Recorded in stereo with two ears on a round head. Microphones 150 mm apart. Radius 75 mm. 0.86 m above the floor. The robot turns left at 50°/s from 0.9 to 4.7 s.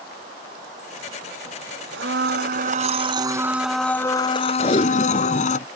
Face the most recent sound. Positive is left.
turn(degrees=30)  # may be behind; listen again after turning